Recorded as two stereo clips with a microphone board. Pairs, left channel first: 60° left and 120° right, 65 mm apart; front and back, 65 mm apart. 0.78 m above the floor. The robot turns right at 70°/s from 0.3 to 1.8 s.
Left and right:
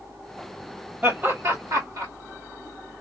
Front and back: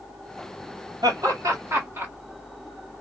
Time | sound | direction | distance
1.0 | laughter | 175° left | 1.8 m